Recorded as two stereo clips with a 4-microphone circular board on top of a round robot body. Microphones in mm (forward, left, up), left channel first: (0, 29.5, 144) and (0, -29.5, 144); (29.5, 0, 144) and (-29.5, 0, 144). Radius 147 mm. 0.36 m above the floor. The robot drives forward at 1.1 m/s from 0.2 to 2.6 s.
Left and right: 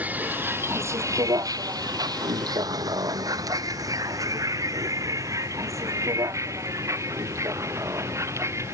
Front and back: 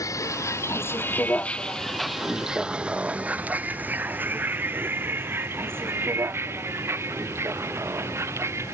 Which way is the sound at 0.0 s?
25° right.